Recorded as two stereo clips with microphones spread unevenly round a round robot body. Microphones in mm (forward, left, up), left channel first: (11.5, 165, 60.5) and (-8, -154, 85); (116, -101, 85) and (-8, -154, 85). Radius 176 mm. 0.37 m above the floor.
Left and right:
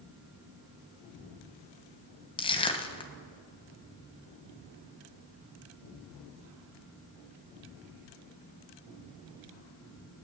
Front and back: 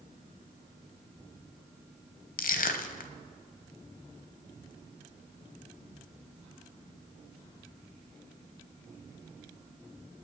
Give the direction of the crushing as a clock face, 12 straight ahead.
12 o'clock.